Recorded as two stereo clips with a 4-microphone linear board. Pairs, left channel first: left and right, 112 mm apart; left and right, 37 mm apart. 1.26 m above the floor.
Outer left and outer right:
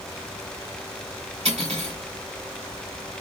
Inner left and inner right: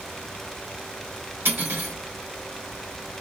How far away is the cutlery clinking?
About 2 m.